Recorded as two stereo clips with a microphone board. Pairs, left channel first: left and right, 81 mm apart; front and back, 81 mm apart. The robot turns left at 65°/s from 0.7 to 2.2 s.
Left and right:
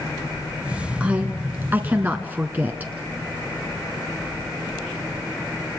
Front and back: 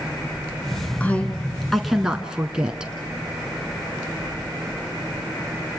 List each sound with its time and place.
1.0 s a woman speaking: 40° right, 1.2 m; by 2.9 s 115° right, 1.2 m